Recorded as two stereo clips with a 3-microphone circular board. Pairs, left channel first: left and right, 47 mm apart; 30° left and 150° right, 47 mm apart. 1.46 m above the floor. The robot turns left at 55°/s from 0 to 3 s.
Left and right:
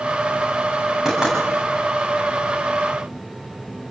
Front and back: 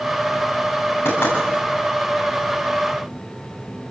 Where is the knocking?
5° right, 8.5 m; by 1.4 s 20° right, 8.5 m.